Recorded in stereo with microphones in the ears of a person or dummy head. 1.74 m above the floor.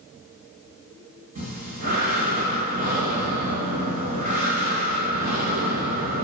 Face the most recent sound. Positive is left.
turn(degrees=-50)  # may be behind; listen again after turning